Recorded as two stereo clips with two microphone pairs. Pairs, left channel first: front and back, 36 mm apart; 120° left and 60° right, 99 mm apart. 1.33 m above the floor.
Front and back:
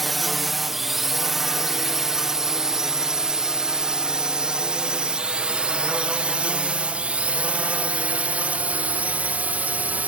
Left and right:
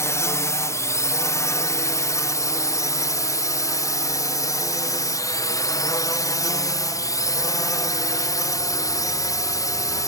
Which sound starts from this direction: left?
A drone, at 0.0 s.